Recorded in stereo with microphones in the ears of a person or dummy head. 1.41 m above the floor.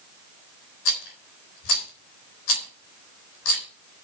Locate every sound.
0.8 s a rattle: 80° left, 3.5 m